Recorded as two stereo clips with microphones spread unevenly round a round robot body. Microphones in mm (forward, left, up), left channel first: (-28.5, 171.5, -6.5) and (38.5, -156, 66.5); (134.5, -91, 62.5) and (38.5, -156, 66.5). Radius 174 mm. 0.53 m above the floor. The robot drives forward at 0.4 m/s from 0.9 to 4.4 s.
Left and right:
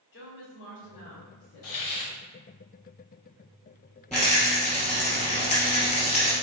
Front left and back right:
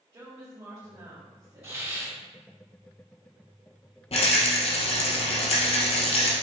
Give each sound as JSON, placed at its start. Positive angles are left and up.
{"t": 0.1, "sound": "a woman speaking", "azimuth_deg": 140, "distance_m": 1.7}
{"t": 1.6, "sound": "a hiss", "azimuth_deg": 130, "distance_m": 1.4}
{"t": 4.1, "sound": "a rattle", "azimuth_deg": 15, "distance_m": 2.5}